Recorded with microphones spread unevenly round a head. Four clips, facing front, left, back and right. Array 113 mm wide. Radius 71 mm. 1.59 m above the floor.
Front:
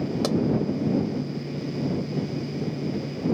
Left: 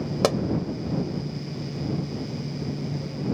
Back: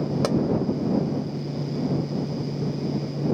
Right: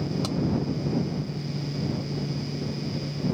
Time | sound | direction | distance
0.2 | a pop | 80° left | ?